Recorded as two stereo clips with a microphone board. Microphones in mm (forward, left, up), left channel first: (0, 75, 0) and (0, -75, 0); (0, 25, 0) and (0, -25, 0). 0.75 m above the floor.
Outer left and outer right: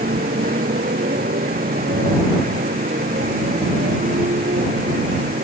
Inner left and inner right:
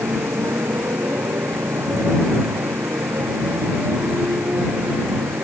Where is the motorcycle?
85° right.